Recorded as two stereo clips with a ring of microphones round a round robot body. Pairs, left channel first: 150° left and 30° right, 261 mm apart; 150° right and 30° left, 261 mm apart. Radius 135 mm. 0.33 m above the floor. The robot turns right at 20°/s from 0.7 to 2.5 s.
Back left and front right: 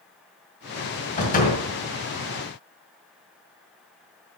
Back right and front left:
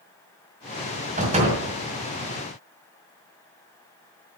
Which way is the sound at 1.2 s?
90° left.